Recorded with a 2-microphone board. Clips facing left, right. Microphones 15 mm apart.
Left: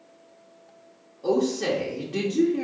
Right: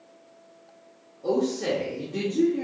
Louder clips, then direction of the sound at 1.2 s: Left 2 dB; 35° left (ahead or behind).